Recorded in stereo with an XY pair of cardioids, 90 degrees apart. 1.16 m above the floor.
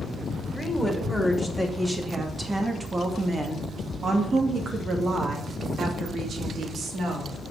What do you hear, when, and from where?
0.5 s a woman speaking: 5° right, 3 m; by 7.3 s 75° right, 3 m